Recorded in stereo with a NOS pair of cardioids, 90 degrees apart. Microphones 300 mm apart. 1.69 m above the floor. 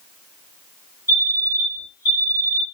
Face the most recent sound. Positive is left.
turn(degrees=-10)